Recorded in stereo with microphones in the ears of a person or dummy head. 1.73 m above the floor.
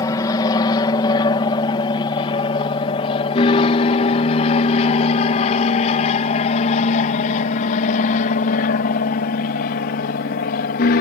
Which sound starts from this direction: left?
An aircraft, at 0.0 s.